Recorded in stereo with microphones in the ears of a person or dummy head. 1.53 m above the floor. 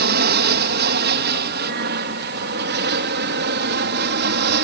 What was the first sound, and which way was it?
An aircraft, 55° right (ahead or behind).